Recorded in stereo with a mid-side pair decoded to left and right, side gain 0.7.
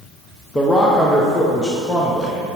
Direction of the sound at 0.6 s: 10° left.